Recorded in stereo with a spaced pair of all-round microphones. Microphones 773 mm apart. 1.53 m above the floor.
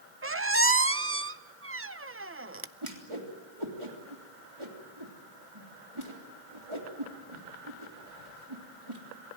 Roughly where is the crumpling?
No crumpling in this recording.